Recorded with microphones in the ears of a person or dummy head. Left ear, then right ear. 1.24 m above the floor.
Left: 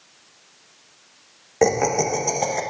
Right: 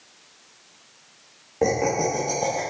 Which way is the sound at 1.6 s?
55° left (ahead or behind).